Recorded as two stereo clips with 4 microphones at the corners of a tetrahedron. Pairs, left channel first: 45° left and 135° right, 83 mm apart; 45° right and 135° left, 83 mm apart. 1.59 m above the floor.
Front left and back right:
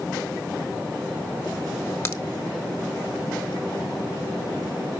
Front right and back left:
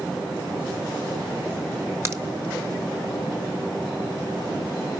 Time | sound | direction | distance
2.0 | a crack | 85° left | 1.0 m